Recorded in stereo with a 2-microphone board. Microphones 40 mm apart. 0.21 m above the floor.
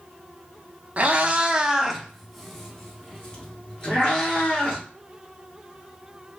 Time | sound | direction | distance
1.0 | a cat meowing | 35° right (ahead or behind) | 0.6 m